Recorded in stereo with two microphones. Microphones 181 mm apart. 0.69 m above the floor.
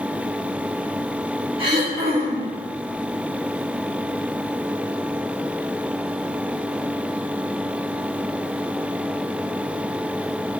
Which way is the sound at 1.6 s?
30° right (ahead or behind).